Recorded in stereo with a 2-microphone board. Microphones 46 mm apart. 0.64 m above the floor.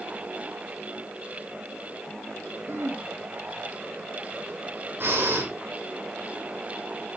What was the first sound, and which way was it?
Throat clearing, 80° right.